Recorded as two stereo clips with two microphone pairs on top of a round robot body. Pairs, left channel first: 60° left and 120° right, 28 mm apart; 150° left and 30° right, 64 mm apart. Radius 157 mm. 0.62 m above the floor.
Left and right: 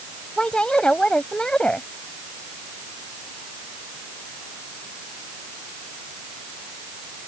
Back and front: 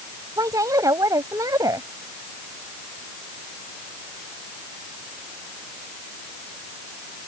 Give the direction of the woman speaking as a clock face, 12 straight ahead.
12 o'clock.